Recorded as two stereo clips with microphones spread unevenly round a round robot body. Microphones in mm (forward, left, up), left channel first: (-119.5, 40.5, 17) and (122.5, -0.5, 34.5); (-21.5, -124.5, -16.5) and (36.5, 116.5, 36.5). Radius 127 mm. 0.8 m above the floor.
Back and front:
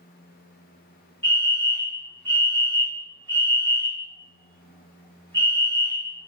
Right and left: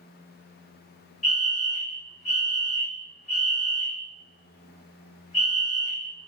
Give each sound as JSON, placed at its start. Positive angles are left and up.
{"t": 1.2, "sound": "a fire alarm", "azimuth_deg": -120, "distance_m": 1.8}